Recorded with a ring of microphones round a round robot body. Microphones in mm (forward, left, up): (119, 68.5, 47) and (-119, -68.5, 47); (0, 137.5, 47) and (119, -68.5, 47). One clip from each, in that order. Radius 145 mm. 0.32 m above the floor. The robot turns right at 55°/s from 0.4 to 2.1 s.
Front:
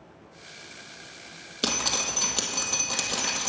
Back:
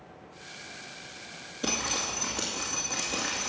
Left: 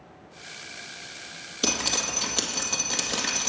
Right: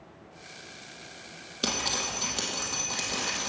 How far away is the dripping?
About 2 m.